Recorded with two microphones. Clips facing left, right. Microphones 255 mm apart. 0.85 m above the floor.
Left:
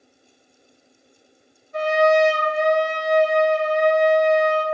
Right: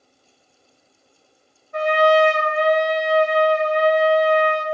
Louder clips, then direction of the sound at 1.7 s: Right 1 dB; 65° right (ahead or behind).